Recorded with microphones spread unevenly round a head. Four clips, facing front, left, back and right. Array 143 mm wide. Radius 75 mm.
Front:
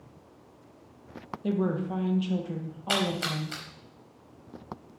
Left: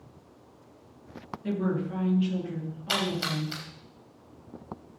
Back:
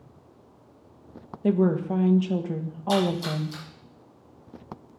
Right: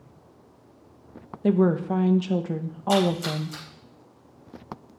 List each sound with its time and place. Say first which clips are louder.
1.4 s a woman speaking: right 8 dB, back 6 dB; 110° right, 1.3 m
2.9 s a splash: right 8 dB, back 5 dB; 30° left, 5 m